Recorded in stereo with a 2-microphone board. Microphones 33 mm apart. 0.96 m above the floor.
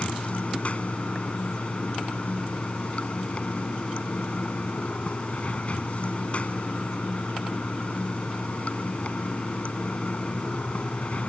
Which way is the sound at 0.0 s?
45° left (ahead or behind).